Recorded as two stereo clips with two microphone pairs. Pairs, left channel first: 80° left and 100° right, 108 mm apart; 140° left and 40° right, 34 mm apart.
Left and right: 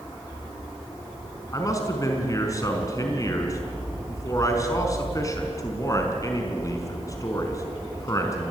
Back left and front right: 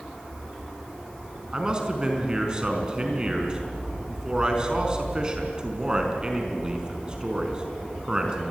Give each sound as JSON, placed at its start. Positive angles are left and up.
{"t": 1.5, "sound": "a man speaking", "azimuth_deg": 25, "distance_m": 4.5}